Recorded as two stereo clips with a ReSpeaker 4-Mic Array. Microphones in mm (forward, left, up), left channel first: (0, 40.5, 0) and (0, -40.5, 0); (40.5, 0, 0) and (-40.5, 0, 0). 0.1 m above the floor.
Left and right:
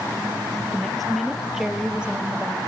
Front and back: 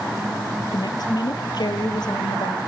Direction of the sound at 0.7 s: 10° left.